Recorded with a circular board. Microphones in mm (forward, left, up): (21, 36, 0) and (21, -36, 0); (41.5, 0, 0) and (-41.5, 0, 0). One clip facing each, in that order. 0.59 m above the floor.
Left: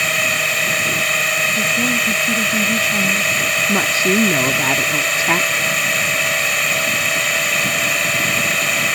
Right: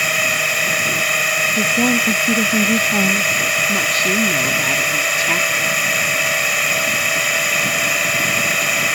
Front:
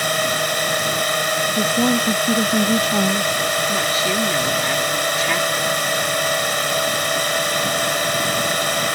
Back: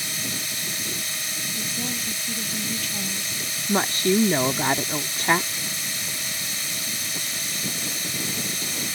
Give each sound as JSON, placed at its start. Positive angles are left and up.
{"t": 0.0, "sound": "a drone", "azimuth_deg": 0}
{"t": 1.6, "sound": "a woman speaking", "azimuth_deg": -40}
{"t": 3.7, "sound": "a woman speaking", "azimuth_deg": 135}